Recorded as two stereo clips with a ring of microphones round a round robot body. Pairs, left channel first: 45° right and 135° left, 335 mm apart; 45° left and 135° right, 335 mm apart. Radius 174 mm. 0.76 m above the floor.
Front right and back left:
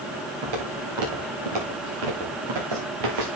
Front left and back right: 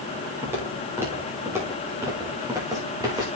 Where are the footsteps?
140° left, 7.5 m; by 3.3 s 145° left, 5.5 m.